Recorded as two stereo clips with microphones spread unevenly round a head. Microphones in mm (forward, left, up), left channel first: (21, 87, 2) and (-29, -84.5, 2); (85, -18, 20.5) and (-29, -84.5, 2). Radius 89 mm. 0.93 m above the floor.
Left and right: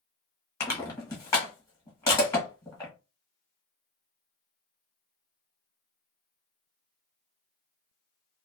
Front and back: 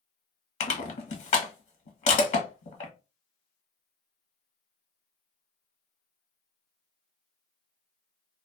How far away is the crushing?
About 1.1 m.